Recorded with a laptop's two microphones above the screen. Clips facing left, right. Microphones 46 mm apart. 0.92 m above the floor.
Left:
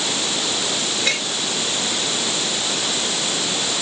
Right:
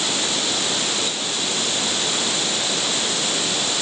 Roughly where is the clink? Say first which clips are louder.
Left 4 dB; left.